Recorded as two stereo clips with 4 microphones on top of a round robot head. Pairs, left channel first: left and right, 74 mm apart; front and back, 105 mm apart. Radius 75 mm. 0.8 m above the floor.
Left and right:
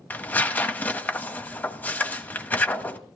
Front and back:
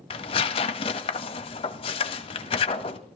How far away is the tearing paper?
About 1.0 m.